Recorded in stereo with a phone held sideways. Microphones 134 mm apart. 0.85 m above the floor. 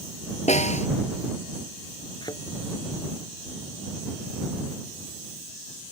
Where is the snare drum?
60° left (ahead or behind).